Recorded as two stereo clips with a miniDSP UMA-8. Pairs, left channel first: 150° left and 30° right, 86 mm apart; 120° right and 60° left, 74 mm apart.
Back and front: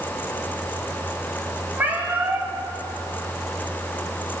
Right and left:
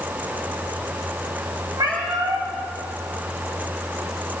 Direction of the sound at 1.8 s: 35° left.